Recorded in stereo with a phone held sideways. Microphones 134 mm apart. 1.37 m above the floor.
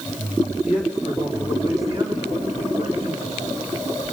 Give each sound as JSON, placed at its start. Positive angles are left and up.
{"t": 0.6, "sound": "a man speaking", "side_deg": -15, "distance_m": 3.0}